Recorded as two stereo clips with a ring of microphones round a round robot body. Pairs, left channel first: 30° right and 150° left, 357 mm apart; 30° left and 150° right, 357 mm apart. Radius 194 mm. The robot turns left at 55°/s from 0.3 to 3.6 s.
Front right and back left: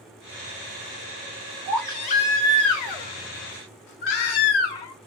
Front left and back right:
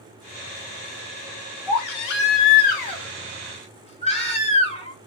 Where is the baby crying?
65° left, 1.5 m; by 5.1 s 45° right, 1.5 m.